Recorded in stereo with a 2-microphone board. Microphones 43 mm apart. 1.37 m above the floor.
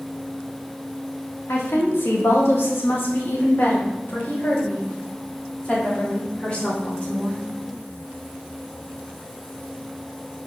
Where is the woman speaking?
90° left, 2.0 m; by 7.4 s 25° left (ahead or behind), 4 m.